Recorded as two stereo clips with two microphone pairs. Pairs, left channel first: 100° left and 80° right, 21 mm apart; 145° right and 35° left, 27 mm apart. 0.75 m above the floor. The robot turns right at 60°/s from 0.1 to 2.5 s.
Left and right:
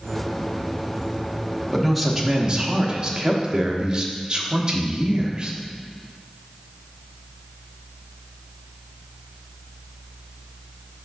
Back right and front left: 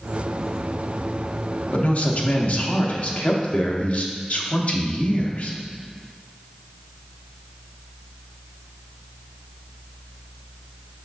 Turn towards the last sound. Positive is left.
turn(degrees=-125)